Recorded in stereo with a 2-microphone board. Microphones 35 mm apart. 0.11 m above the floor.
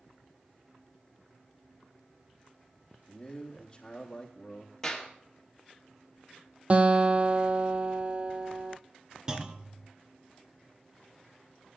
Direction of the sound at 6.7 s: 45° right (ahead or behind).